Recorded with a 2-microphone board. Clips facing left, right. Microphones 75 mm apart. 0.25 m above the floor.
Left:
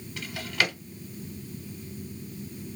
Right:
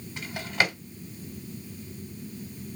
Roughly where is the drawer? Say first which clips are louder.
Right 1 dB; right.